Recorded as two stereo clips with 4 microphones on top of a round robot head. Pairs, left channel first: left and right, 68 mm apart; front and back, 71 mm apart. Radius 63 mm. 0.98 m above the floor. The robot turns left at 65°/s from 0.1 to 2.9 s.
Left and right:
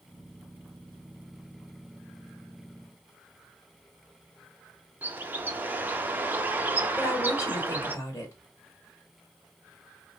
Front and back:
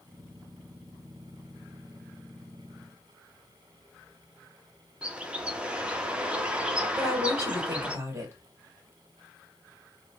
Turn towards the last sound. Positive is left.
turn(degrees=135)